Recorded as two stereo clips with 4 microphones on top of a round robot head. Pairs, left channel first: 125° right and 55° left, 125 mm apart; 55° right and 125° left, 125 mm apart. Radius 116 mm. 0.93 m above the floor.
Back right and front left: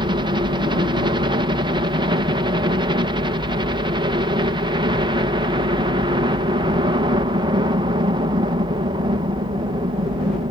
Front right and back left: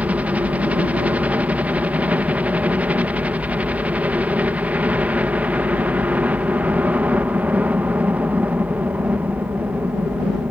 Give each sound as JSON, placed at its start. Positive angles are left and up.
{"t": 0.0, "sound": "a helicopter", "azimuth_deg": 50}